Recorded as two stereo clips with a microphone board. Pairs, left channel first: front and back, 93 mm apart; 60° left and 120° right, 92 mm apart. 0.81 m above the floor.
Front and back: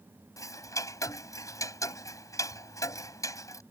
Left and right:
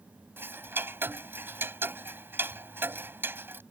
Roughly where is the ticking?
Ahead right.